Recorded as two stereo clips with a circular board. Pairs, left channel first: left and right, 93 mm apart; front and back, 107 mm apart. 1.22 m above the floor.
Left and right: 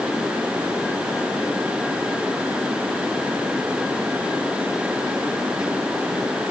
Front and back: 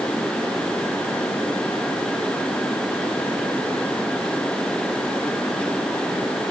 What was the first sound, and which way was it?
Only background noise.